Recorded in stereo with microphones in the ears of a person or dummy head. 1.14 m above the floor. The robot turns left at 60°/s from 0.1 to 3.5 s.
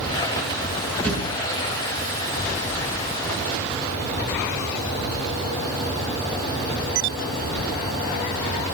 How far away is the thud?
About 6.5 m.